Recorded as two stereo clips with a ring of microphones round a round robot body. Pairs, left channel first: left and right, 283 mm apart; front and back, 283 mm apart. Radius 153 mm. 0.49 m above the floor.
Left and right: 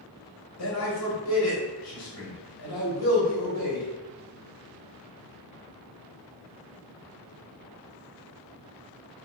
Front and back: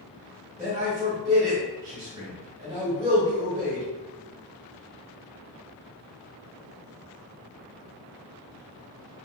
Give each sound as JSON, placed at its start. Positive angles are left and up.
{"t": 0.6, "sound": "a man speaking", "azimuth_deg": 105, "distance_m": 1.2}